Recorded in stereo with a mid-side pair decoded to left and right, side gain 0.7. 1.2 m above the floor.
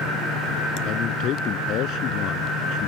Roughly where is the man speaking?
Ahead left.